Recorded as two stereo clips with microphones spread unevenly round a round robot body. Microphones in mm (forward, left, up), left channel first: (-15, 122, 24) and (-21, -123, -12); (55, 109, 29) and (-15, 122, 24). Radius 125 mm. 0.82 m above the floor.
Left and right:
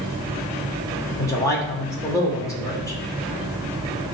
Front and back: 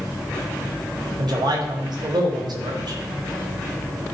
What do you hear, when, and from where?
1.2 s a man speaking: 170° left, 3 m